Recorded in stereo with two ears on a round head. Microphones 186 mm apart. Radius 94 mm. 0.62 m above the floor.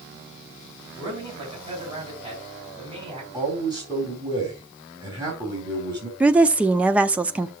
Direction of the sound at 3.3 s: 20° right (ahead or behind).